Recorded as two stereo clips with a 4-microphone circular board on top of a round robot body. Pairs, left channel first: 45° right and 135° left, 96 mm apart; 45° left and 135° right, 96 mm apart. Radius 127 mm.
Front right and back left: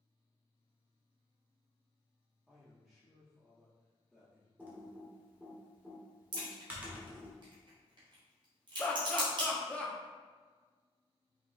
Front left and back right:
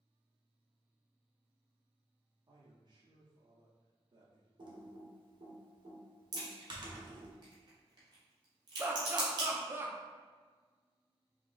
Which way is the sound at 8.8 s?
105° right.